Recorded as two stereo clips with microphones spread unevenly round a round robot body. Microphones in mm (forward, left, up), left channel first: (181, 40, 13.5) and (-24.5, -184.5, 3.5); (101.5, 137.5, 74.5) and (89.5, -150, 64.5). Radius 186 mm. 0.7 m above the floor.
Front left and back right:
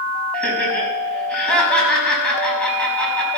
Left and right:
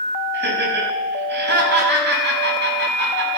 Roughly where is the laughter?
Ahead right.